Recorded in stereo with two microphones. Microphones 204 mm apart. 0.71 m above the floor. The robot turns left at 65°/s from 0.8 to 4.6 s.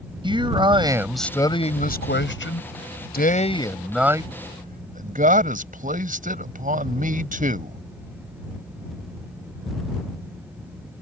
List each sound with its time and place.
0.2 s a man speaking: 155° right; by 7.8 s 45° right